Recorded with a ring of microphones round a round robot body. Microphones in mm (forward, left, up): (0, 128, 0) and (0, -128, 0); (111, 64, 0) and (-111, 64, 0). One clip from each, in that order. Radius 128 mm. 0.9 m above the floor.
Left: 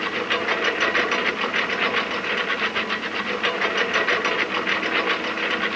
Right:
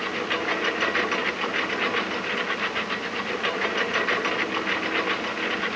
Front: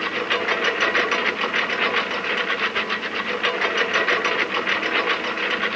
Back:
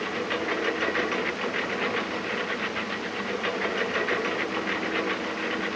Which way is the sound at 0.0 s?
10° left.